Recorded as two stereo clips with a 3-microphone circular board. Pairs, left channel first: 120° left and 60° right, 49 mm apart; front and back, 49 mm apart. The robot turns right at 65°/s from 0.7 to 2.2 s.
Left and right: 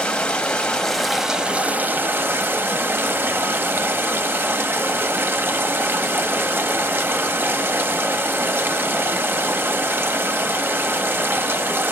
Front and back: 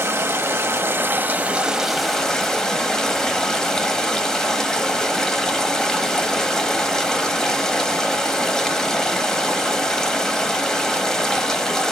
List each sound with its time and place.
0.0 s running water: 170° right, 1.0 m; by 11.9 s 75° right, 1.0 m